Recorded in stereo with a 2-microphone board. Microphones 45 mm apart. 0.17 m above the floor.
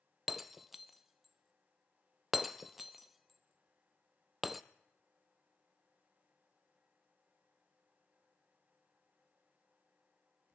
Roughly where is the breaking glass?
Centre.